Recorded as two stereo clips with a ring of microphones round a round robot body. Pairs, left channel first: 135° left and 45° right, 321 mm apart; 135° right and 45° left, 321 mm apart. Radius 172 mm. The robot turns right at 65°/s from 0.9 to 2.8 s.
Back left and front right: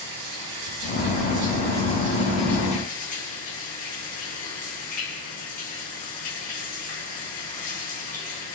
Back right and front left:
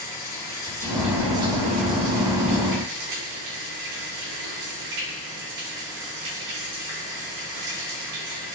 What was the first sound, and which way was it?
Running water, 55° right.